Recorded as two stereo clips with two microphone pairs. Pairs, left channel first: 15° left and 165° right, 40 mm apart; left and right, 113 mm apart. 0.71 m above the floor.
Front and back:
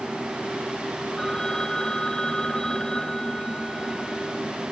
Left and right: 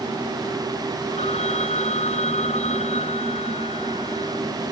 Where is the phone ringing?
90° left.